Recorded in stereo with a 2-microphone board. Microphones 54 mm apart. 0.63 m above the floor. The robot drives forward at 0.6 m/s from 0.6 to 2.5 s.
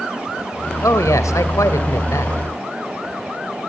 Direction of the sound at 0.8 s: 75° left (ahead or behind).